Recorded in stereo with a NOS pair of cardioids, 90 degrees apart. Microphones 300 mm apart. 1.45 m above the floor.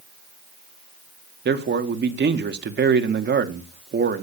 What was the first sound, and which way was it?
A man speaking, 35° right.